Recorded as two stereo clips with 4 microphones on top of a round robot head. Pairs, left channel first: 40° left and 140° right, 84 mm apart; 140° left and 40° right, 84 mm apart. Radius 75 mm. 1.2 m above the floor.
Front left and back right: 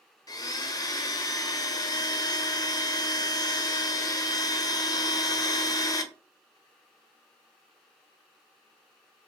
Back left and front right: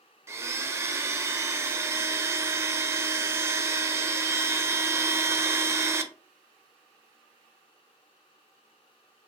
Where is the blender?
10° left, 0.5 m.